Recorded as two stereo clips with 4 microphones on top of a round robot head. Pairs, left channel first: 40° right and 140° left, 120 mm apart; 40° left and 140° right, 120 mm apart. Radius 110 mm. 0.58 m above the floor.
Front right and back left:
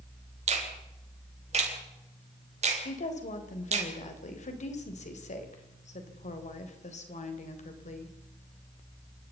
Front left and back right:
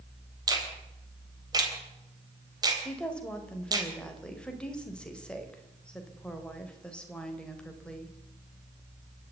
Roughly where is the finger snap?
Behind.